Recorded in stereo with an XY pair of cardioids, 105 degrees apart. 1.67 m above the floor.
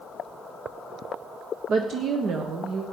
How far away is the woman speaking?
About 1.1 m.